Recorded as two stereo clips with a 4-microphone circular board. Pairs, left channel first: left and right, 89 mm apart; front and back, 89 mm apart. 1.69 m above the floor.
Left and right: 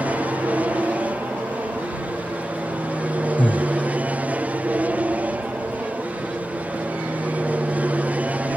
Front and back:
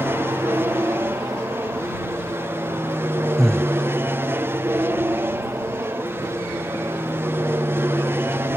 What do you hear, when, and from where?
0.0 s an aircraft: 145° right
3.4 s breathing: 85° left